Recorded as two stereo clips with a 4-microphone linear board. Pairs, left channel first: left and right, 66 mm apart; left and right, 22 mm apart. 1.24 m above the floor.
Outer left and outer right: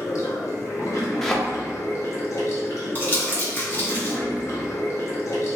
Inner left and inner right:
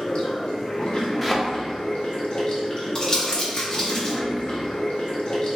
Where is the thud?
5° left (ahead or behind), 0.5 m.